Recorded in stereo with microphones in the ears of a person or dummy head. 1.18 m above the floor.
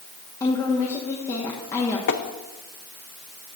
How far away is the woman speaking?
About 1.3 m.